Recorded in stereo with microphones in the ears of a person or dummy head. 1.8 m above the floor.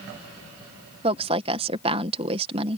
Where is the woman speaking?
35° right (ahead or behind).